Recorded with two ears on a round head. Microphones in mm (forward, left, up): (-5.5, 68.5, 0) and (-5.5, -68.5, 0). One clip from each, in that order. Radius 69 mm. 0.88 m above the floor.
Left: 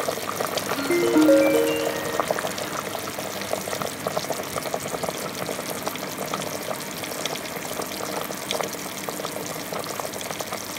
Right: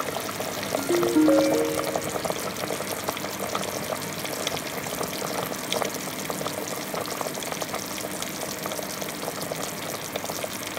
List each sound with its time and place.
0.8 s a ringtone: 60° left (ahead or behind), 0.7 m